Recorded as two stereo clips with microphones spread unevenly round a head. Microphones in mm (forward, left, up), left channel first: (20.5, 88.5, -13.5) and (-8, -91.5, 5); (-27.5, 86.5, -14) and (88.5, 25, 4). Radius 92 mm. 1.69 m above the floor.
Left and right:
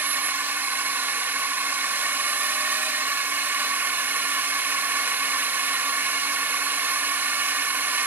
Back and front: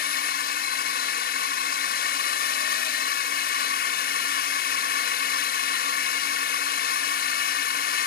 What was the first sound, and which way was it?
A drone, straight behind.